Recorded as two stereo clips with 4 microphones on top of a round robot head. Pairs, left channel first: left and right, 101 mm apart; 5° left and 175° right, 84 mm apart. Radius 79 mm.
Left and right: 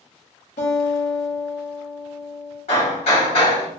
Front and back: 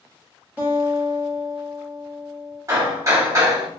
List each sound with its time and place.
0.6 s a guitar: 120° left, 0.9 m
2.7 s hammering: 130° left, 1.3 m